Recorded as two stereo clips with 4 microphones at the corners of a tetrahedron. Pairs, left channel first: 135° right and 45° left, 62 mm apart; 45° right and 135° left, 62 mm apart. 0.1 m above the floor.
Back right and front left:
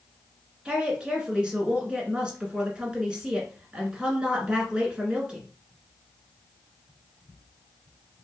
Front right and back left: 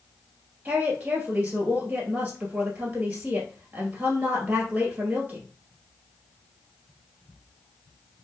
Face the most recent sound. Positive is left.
turn(degrees=100)